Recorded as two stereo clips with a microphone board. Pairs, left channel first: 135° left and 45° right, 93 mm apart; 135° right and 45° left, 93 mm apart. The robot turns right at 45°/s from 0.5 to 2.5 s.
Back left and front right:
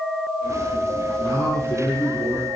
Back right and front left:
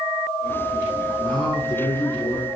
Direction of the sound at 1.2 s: 175° right.